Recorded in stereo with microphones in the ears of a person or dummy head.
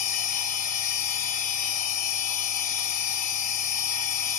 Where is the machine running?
50° left (ahead or behind), 1.6 m.